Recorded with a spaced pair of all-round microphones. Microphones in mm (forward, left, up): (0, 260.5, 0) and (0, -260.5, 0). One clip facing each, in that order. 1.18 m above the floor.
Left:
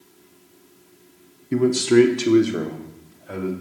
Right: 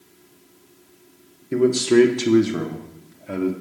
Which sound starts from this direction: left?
A man speaking, at 1.5 s.